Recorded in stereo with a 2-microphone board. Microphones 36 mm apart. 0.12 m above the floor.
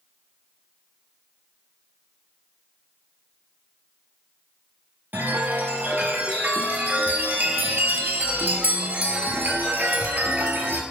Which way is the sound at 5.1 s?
60° right (ahead or behind).